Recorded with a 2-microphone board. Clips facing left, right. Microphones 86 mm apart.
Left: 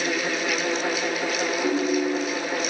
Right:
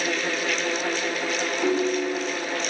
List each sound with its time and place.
1.6 s a ringtone: 30° right (ahead or behind), 2.0 m